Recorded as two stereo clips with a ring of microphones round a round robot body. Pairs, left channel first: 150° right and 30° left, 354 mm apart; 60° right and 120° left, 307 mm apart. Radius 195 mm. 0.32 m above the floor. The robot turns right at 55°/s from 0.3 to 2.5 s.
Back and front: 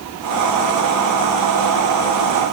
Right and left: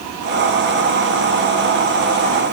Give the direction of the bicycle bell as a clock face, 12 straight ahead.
No bicycle bell in this recording.